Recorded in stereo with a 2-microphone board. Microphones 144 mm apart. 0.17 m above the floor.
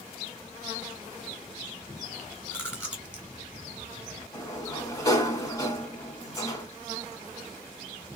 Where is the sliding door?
25° left (ahead or behind), 1.1 m.